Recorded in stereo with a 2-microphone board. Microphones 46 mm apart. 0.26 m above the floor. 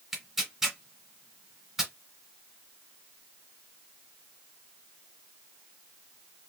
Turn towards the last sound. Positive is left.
turn(degrees=-5)  # may be behind; listen again after turning